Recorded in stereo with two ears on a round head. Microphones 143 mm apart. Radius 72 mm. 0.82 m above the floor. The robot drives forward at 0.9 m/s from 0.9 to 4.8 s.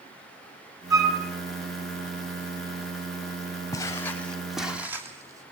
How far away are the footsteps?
About 2.5 m.